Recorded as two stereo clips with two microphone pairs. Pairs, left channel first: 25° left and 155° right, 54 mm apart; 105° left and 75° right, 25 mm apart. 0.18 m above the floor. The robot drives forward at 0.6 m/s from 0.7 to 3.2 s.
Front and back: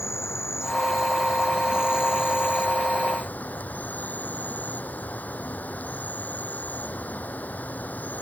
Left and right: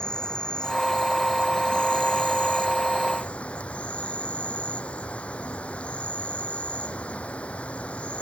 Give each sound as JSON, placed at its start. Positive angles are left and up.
{"t": 0.0, "sound": "an insect", "azimuth_deg": 55}